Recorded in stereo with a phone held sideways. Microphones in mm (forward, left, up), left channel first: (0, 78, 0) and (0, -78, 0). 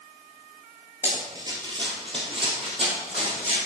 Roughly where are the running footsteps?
Centre.